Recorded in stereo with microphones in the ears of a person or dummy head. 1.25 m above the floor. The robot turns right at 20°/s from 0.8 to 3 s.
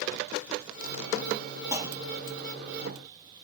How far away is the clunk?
About 0.8 m.